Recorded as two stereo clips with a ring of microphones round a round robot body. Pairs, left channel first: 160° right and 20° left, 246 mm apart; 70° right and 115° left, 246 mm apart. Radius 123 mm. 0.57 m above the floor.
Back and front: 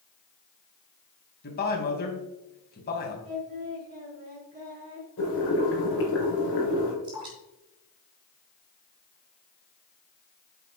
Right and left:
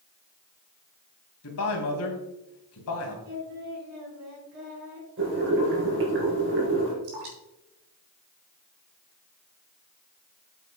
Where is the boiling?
160° left, 4.5 m.